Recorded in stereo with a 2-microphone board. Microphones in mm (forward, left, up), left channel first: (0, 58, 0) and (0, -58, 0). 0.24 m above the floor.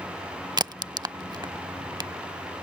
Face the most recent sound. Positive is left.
turn(degrees=-35)  # may be behind; listen again after turning